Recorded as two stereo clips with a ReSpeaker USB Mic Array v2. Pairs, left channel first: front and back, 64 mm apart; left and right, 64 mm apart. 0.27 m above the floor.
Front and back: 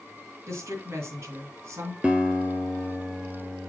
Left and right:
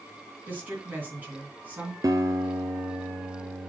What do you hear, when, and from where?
0.5 s a woman speaking: 145° right, 2.5 m
2.0 s a guitar: 105° right, 0.8 m